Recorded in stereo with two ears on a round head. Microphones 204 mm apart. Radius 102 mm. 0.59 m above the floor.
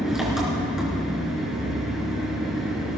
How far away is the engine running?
About 4.5 m.